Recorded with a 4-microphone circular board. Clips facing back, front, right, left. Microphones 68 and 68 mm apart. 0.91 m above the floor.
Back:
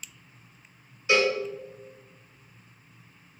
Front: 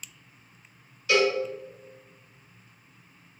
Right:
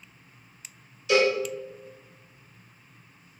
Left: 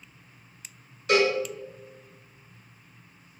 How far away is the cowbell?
About 1.8 m.